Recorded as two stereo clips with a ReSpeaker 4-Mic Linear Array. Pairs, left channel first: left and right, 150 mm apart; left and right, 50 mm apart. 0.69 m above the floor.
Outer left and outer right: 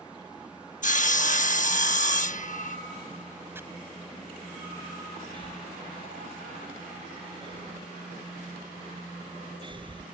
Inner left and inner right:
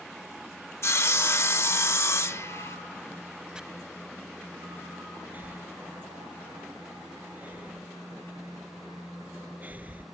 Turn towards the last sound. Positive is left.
turn(degrees=-35)  # may be behind; listen again after turning